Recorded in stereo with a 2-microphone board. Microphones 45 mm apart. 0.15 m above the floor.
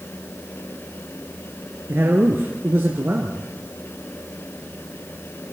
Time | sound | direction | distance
1.9 | a man speaking | 55° right (ahead or behind) | 2.0 m